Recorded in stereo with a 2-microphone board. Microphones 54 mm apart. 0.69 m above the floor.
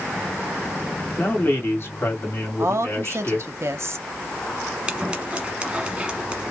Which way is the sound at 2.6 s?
55° right (ahead or behind).